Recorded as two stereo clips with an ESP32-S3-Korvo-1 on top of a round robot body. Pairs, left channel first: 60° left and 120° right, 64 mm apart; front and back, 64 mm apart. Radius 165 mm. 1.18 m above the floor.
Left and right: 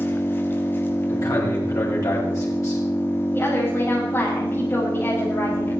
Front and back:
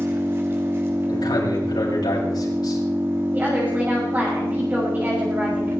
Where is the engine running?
120° left, 1.1 m.